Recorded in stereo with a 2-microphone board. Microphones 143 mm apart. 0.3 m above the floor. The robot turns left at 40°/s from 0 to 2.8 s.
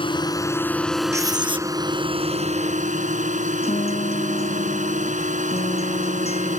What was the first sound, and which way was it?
A drone, 40° left.